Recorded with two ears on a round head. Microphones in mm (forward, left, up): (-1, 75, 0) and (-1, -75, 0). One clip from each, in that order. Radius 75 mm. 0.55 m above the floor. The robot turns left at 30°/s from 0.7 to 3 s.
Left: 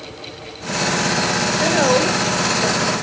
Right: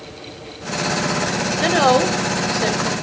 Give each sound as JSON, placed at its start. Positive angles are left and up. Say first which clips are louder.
{"t": 1.6, "sound": "a woman speaking", "louder": "right 2 dB", "side_deg": -65, "distance_m": 2.0}